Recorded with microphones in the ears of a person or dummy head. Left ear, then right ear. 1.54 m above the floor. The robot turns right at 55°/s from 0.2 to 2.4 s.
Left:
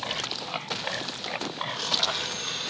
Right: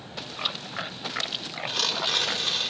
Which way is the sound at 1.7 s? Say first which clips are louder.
Right 2 dB; 55° right.